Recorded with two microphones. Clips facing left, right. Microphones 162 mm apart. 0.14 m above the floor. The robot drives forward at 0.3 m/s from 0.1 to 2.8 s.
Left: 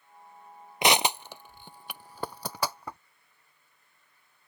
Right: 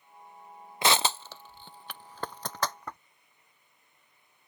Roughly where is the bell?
I don't hear a bell.